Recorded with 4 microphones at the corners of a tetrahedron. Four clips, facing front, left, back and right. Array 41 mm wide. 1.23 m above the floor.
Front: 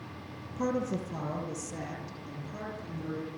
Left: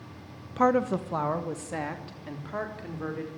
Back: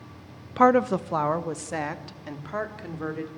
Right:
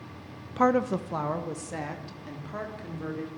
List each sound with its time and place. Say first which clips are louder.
0.6 s a woman speaking: even, back 12 dB; straight behind, 1.0 m; by 3.3 s 165° left, 4.5 m